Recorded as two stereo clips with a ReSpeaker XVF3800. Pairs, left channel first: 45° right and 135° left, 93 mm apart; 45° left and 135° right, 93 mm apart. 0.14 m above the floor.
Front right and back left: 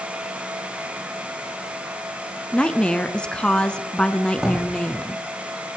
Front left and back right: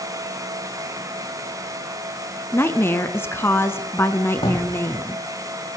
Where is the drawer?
55° left, 7 m.